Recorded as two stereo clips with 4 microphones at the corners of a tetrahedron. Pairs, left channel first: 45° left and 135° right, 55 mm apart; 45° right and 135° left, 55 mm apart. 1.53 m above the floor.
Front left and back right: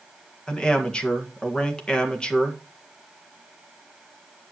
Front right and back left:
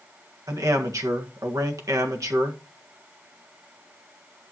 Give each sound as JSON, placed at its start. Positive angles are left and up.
{"t": 0.5, "sound": "a man speaking", "azimuth_deg": 120, "distance_m": 1.6}